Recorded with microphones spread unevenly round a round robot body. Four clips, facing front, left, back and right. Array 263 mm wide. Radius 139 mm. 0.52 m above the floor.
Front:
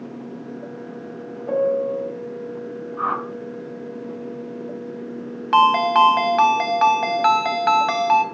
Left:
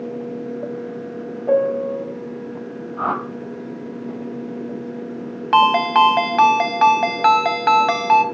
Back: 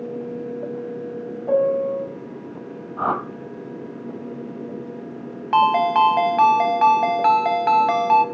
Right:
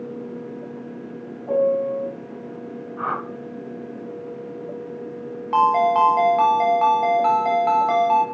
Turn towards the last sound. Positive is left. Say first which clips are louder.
# left 2 dB, front 1 dB
turn(degrees=70)